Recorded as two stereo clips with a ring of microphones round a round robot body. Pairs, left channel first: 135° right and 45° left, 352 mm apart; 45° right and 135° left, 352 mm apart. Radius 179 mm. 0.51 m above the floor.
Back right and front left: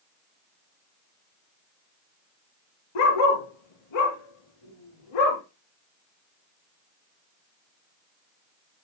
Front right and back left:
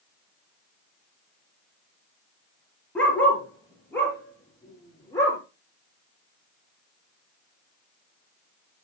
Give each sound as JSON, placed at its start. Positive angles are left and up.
{"t": 3.0, "sound": "a dog barking", "azimuth_deg": -130, "distance_m": 3.5}